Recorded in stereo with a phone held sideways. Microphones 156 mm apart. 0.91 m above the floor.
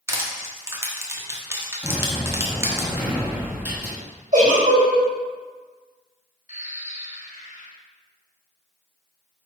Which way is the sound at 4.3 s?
60° right (ahead or behind).